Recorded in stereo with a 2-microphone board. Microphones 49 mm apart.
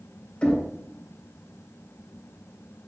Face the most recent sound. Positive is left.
turn(degrees=20)  # may be behind; listen again after turning